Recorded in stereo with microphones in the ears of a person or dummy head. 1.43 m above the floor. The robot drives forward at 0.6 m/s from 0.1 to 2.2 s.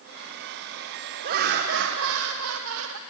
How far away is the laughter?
About 1.1 m.